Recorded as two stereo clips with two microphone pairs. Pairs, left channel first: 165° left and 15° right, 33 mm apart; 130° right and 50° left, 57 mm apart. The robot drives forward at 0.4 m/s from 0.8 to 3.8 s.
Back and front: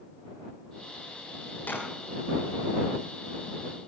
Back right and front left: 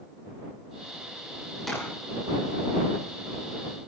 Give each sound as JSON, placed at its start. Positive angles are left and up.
{"t": 1.7, "sound": "a clap", "azimuth_deg": 145, "distance_m": 10.0}